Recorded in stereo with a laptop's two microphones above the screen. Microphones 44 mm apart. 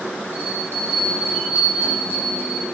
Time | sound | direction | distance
0.3 | a bell | 60° right (ahead or behind) | 4 m